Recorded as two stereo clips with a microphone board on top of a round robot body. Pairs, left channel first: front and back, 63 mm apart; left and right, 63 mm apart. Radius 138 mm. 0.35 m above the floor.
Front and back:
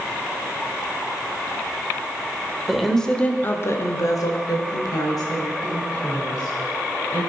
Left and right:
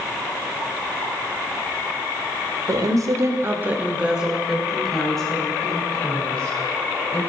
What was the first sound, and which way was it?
A woman speaking, 95° right.